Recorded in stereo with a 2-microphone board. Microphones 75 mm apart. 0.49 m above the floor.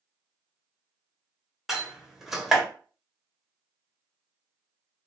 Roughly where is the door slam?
Centre.